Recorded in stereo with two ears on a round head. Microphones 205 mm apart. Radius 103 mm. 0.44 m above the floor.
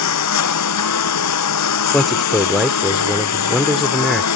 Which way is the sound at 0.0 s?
85° left.